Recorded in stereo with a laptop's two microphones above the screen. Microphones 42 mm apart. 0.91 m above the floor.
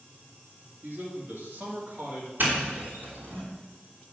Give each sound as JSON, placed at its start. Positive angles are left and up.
{"t": 0.8, "sound": "a man speaking", "side_deg": -55, "distance_m": 2.5}
{"t": 2.4, "sound": "a doorbell", "side_deg": -50, "distance_m": 3.0}